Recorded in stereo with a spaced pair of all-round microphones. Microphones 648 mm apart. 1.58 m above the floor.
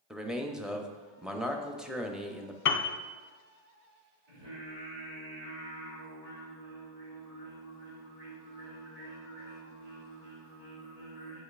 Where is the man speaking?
Centre (ahead or behind), 0.6 m.